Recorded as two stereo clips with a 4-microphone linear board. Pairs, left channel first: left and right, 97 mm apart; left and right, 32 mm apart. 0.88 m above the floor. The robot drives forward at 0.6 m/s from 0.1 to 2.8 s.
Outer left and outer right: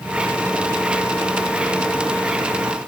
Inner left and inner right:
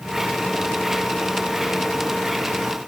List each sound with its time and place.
Only background noise.